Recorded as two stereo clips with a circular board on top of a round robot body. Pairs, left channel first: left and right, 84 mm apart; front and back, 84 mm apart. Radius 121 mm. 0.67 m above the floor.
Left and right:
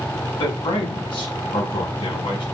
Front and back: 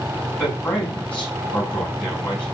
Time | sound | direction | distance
0.4 | a man speaking | 75° left | 5.5 m